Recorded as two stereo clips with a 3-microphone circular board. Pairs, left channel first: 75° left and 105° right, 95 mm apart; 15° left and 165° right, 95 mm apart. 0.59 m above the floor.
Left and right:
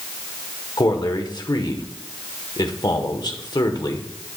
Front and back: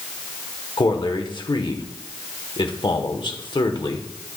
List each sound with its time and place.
0.8 s a man speaking: 40° left, 1.4 m